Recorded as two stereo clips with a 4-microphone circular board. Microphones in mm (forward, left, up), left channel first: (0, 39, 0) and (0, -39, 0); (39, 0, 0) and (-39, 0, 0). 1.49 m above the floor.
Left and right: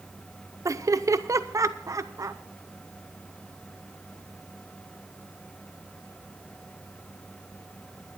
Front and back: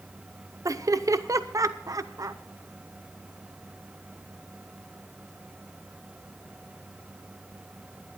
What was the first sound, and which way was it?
Laughter, 135° right.